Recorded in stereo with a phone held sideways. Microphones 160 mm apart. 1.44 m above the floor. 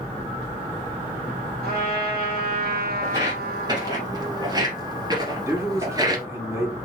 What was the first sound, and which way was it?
A trumpet, 75° right (ahead or behind).